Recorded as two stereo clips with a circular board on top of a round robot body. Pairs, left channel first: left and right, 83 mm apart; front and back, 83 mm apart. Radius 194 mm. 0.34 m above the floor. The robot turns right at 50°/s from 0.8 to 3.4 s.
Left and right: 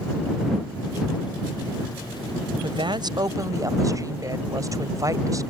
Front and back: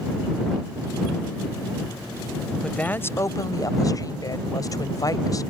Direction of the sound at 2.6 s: 80° right.